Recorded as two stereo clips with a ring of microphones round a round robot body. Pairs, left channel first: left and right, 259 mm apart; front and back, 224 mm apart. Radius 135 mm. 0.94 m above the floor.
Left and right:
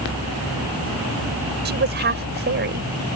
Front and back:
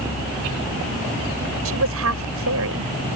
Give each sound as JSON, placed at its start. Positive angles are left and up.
{"t": 1.6, "sound": "a woman speaking", "azimuth_deg": -140}